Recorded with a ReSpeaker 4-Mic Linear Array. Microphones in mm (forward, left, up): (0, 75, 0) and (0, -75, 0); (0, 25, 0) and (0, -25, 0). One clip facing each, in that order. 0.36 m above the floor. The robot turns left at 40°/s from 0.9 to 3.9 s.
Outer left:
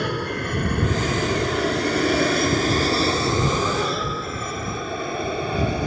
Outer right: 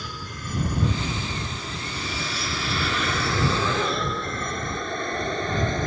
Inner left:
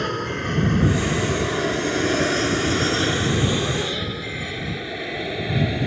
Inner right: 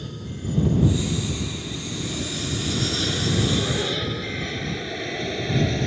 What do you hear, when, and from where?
0.0 s an aircraft: 65° left (ahead or behind); by 5.9 s 10° left (ahead or behind)